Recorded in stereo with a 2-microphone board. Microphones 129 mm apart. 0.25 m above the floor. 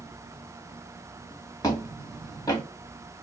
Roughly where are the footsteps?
Left.